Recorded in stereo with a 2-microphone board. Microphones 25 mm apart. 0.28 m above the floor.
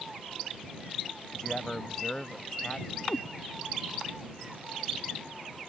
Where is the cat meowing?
70° left (ahead or behind).